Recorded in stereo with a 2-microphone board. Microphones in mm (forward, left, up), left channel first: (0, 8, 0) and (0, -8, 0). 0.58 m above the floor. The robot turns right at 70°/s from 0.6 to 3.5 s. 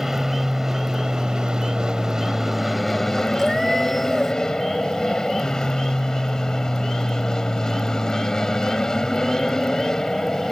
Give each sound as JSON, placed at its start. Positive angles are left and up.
{"t": 0.0, "sound": "an aircraft", "side_deg": -25}
{"t": 3.4, "sound": "a cat meowing", "side_deg": -10}